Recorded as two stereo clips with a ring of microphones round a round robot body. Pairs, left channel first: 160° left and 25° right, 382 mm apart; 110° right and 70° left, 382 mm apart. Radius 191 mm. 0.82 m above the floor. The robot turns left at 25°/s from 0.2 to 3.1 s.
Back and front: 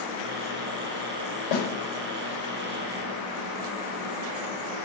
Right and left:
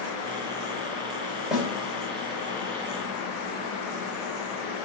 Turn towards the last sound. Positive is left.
turn(degrees=115)